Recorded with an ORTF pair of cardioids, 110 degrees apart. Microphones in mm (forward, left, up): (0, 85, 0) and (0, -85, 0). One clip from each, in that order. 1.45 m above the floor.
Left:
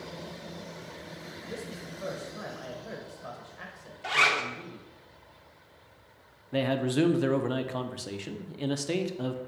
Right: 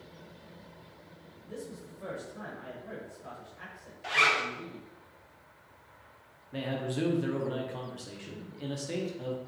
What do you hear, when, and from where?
1.5 s a man speaking: 30° left, 0.8 m
4.0 s a zipper: 15° left, 0.7 m
6.5 s a man speaking: 40° left, 0.5 m